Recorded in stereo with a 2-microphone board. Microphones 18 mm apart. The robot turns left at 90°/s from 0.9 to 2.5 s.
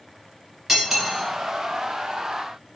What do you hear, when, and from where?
0.7 s cutlery clinking: 15° right (ahead or behind), 0.9 m; by 1.2 s centre (ahead or behind), 0.9 m